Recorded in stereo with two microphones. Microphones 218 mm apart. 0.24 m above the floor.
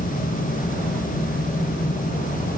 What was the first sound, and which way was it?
Only background noise.